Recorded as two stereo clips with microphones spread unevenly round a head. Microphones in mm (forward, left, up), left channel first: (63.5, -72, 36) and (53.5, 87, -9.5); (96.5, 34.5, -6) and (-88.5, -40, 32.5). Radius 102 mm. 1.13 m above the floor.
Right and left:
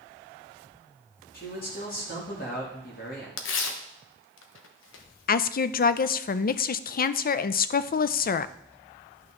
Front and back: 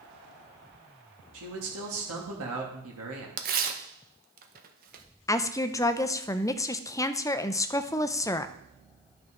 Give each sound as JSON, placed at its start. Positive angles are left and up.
{"t": 1.3, "sound": "a man speaking", "azimuth_deg": -140, "distance_m": 2.5}
{"t": 3.4, "sound": "tearing paper", "azimuth_deg": -105, "distance_m": 0.9}
{"t": 5.3, "sound": "a woman speaking", "azimuth_deg": -50, "distance_m": 0.5}